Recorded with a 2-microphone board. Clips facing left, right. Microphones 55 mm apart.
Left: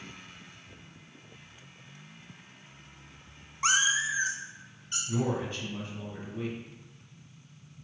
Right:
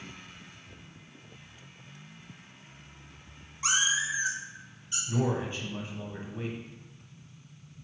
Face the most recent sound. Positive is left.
turn(degrees=-25)  # may be behind; listen again after turning